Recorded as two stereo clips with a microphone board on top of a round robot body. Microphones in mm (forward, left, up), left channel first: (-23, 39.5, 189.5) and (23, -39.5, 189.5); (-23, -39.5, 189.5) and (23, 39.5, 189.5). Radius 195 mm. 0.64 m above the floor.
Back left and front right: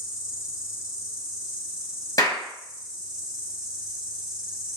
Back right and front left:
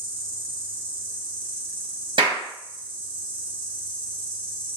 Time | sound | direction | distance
0.0 | an insect | 15° left | 1.5 m
2.2 | a clap | 70° left | 1.1 m